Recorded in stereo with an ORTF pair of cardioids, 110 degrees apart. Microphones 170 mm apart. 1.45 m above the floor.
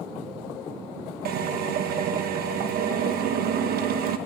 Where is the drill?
65° right, 1.3 m.